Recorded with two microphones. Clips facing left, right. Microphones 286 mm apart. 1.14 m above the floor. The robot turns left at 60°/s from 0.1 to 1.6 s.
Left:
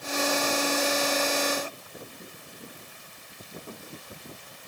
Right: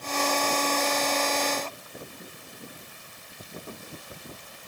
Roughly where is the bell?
I don't hear a bell.